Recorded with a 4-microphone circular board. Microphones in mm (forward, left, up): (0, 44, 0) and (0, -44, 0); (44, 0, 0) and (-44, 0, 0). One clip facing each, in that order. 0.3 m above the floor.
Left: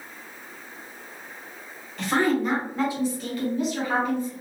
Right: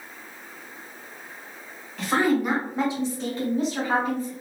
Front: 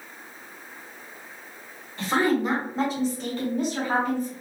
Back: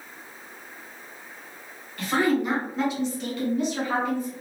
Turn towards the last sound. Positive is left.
turn(degrees=-45)